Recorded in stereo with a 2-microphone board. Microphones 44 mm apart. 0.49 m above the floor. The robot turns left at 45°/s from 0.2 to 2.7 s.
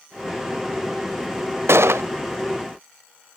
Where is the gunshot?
75° right (ahead or behind), 0.5 m; by 2.0 s 85° right, 0.5 m.